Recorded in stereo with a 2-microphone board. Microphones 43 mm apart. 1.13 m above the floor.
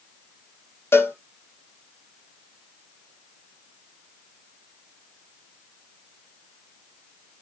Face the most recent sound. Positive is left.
turn(degrees=65)  # may be behind; listen again after turning